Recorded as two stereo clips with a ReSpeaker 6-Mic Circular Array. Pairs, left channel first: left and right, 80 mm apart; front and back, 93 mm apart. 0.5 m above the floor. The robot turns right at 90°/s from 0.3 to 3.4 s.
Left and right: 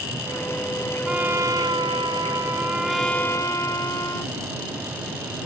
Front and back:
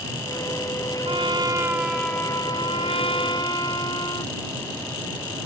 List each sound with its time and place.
1.1 s a trumpet: 170° right; by 4.3 s 40° left